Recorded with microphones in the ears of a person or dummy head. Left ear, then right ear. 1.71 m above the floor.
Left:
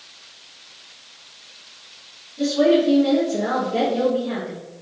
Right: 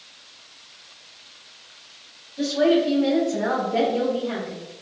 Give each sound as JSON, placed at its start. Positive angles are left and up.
{"t": 2.4, "sound": "a woman speaking", "side_deg": -80, "distance_m": 1.8}